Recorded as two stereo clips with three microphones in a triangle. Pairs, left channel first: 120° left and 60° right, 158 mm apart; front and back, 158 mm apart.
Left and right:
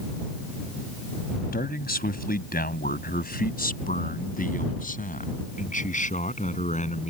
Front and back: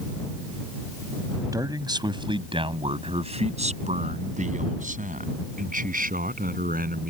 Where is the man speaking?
115° left; by 7.1 s 160° left.